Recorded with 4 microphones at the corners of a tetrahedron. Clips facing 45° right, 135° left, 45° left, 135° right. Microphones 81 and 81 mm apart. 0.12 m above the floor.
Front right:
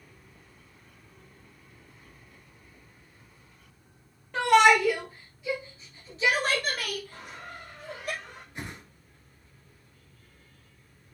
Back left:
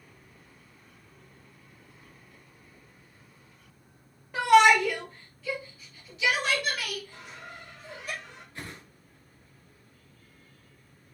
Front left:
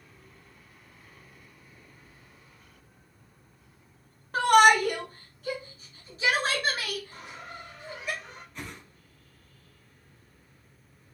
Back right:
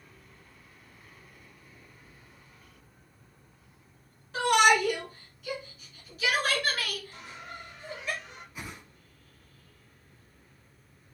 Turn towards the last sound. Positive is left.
turn(degrees=-70)